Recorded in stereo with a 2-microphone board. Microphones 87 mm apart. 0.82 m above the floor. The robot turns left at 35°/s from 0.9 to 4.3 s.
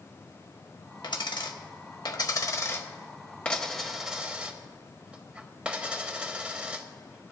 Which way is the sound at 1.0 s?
65° left (ahead or behind).